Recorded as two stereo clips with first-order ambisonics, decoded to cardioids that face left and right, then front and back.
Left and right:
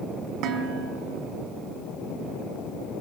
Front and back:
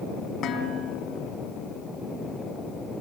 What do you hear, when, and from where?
0.4 s dishes clattering: 55° right, 3.5 m